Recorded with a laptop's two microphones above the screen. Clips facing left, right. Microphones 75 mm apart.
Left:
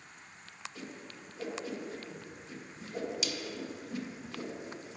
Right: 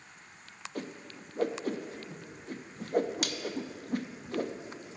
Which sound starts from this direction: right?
A whoosh, at 0.8 s.